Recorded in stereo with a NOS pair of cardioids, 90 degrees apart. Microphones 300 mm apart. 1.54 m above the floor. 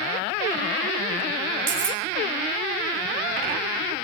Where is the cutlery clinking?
55° right, 4.5 m.